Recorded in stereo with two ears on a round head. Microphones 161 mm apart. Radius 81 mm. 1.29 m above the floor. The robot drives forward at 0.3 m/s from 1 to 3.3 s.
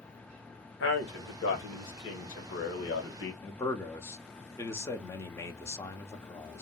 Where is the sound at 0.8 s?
65° left (ahead or behind), 1.6 m; by 3.3 s 75° left (ahead or behind), 1.5 m.